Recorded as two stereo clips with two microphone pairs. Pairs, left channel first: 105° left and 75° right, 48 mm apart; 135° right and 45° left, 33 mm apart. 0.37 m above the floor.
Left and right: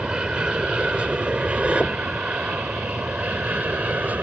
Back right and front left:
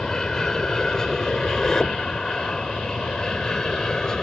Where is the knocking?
170° left.